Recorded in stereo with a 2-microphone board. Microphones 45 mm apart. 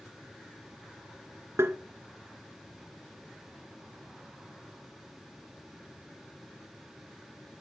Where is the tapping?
70° right (ahead or behind), 1.4 m.